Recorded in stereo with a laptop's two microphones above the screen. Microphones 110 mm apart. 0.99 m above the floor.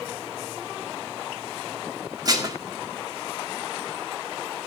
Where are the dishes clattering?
35° right (ahead or behind), 1.6 m.